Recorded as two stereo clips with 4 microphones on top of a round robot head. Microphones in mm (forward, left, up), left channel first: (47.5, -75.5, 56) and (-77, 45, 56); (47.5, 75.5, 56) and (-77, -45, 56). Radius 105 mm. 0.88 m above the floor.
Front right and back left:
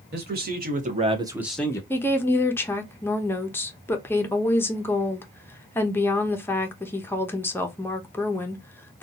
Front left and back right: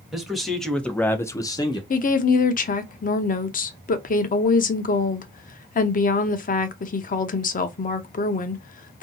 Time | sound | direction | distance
0.1 | a man speaking | 135° left | 1.4 m
1.9 | a woman speaking | 30° left | 0.7 m